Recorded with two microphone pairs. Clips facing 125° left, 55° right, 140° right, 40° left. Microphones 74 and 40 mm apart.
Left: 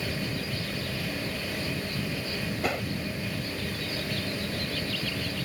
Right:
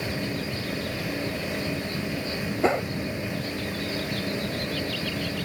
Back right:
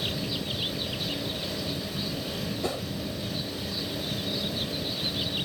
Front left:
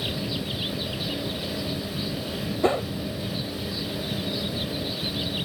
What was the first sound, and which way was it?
A whoosh, straight ahead.